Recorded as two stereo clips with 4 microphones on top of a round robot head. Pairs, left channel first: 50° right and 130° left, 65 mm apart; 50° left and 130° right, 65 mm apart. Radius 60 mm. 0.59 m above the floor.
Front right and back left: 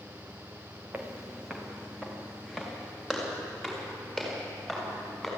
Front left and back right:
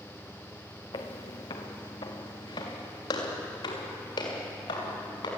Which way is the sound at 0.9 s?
60° left.